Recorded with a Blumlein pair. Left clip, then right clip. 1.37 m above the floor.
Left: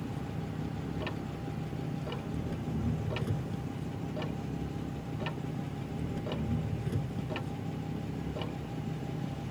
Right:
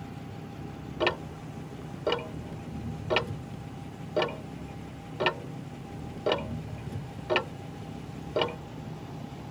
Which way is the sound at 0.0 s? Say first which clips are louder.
Left 3 dB; 15° left.